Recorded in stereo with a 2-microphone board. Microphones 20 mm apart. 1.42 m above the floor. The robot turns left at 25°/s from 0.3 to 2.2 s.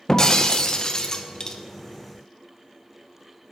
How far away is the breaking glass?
About 0.5 m.